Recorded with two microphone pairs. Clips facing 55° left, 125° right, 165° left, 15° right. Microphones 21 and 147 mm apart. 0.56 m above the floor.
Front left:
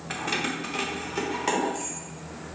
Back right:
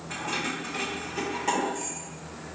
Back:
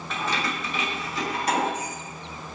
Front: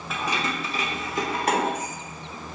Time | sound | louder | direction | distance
0.1 | keys jangling | front left 2 dB, front 1 dB | 70° left | 0.6 m